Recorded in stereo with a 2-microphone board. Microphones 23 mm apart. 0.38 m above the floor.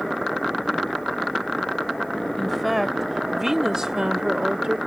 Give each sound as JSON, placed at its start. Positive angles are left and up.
{"t": 2.4, "sound": "a woman speaking", "side_deg": 0}